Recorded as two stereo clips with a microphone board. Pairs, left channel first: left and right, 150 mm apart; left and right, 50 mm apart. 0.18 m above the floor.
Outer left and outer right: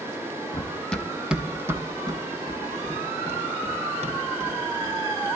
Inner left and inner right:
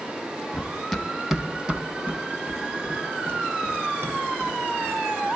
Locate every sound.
0.5 s running footsteps: 20° left (ahead or behind), 2.5 m; by 5.2 s 55° right (ahead or behind), 7.5 m